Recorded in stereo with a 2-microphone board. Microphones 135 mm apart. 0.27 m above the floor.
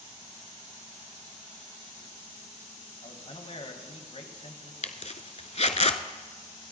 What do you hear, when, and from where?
3.0 s a man speaking: 50° left (ahead or behind), 1.6 m
4.8 s a zipper: 55° left (ahead or behind), 0.8 m